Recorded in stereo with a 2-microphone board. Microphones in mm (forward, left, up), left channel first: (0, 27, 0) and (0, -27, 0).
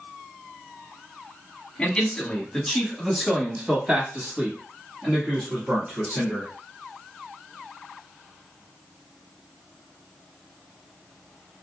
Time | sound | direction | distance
1.8 | a man speaking | 15° left (ahead or behind) | 1.3 m